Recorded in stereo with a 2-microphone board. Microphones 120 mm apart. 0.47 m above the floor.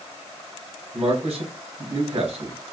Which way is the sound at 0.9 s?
60° right (ahead or behind).